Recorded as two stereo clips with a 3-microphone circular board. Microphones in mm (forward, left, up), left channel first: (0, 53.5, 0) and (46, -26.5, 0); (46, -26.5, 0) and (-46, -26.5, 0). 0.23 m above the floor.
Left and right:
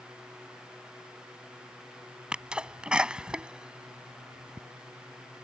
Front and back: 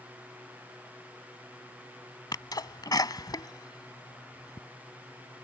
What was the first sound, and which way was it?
A sneeze, 20° left.